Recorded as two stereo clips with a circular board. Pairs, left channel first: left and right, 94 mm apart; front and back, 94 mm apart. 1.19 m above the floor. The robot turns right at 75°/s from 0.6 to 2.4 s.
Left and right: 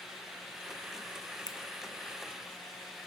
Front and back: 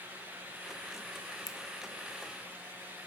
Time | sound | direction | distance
1.5 | a finger snap | 50° left | 0.6 m